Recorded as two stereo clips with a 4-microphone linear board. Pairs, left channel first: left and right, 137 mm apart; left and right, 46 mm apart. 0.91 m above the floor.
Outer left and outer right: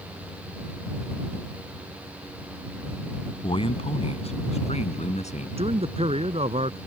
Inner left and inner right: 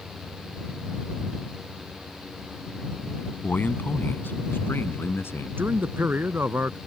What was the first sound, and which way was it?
A man speaking, 40° left (ahead or behind).